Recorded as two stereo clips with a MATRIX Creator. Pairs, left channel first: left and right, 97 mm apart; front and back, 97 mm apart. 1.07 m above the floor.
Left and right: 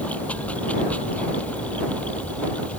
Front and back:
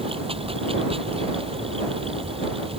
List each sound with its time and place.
0.0 s running water: 165° left